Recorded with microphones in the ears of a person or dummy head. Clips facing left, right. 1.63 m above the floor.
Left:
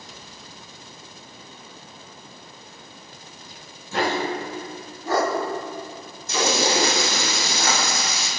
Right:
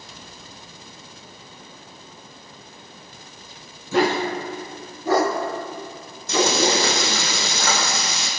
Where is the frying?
75° right (ahead or behind), 6 m.